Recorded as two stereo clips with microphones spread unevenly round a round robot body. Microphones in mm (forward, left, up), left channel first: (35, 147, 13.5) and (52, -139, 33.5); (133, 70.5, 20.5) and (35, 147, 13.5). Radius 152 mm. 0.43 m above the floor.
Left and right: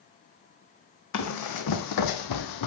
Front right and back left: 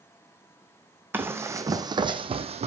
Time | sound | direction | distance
1.1 | running footsteps | 65° left | 1.2 m